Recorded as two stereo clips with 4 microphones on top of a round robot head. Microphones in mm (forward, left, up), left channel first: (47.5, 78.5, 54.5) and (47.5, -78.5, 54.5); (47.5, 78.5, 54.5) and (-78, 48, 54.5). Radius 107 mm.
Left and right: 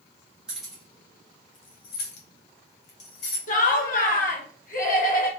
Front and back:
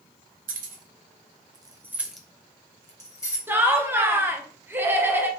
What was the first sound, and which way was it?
Keys jangling, 175° right.